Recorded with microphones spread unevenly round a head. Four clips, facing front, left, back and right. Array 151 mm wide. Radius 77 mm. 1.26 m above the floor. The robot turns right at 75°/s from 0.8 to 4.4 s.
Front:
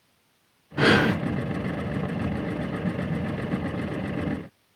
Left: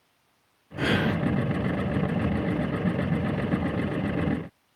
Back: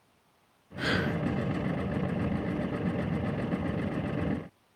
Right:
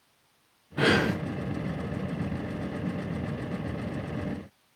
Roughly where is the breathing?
Ahead.